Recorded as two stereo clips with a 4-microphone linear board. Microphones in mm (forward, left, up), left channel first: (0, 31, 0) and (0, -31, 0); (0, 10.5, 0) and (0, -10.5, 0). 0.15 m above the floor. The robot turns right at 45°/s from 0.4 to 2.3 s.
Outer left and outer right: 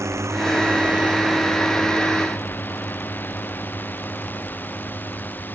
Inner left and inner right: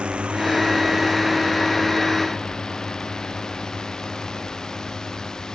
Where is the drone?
50° right (ahead or behind); by 5.6 s 30° left (ahead or behind).